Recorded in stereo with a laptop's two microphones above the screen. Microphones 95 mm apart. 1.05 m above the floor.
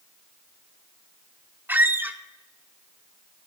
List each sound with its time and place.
1.7 s a squeak: 20° right (ahead or behind), 0.5 m